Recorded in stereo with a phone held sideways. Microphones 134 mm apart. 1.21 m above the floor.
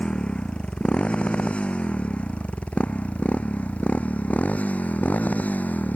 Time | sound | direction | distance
0.0 | a motorcycle | 5° left (ahead or behind) | ?